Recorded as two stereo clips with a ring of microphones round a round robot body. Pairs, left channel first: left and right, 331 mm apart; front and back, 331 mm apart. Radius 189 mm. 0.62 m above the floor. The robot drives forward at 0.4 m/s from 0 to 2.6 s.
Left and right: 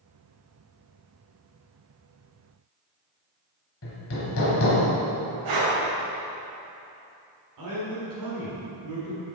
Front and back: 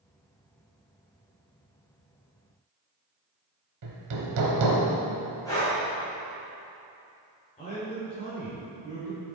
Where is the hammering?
145° left, 1.0 m.